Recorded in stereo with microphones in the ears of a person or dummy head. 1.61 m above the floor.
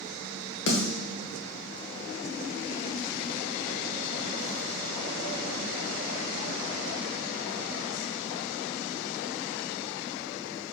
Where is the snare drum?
65° left (ahead or behind), 1.5 m.